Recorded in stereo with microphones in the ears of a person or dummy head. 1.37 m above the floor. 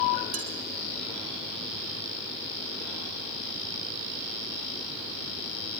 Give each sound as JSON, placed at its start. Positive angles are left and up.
{"t": 0.3, "sound": "dishes clattering", "side_deg": -40, "distance_m": 1.9}